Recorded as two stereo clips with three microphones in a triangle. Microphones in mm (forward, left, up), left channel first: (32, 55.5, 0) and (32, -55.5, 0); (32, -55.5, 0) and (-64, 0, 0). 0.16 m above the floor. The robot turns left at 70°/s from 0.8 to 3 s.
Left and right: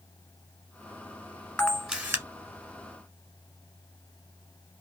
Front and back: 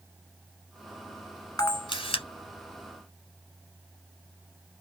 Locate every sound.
1.6 s a camera shutter: 15° left, 1.2 m; by 2.2 s 30° right, 1.2 m